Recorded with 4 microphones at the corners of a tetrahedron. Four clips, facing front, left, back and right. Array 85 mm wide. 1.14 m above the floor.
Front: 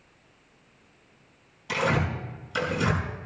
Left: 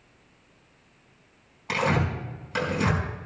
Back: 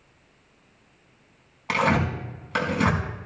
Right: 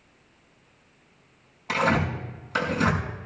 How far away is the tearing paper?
About 5.5 m.